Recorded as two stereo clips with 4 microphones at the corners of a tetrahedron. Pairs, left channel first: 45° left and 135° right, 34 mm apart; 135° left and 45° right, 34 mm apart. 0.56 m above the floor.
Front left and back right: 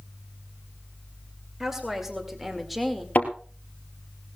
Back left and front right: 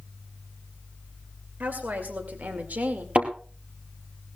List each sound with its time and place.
1.6 s a woman speaking: 60° right, 2 m; by 3.0 s 45° right, 1.6 m
3.1 s a thud: straight ahead, 2.5 m